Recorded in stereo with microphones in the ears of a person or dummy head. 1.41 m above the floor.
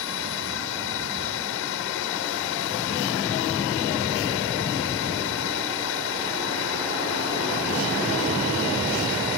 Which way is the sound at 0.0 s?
60° left (ahead or behind).